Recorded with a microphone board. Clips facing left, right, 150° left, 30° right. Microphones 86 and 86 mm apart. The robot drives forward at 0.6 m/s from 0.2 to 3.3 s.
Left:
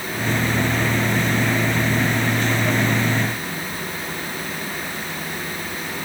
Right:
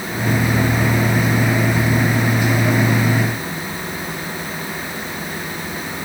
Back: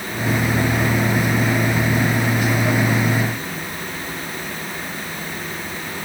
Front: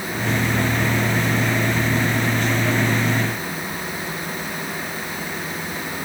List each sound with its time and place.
Only background noise.